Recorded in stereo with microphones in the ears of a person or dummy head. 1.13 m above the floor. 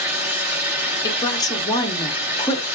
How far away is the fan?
About 1.4 m.